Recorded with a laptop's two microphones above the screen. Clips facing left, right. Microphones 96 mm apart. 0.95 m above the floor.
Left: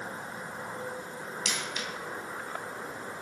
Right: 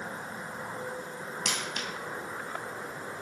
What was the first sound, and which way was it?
A dropped coin, 55° right (ahead or behind).